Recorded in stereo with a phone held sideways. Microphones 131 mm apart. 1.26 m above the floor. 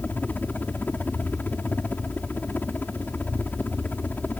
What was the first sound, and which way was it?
A helicopter, 15° left (ahead or behind).